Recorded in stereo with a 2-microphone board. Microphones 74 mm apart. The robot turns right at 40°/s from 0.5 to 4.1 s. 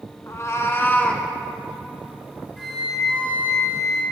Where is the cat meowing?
135° left, 1.1 m; by 1.3 s 165° left, 1.1 m.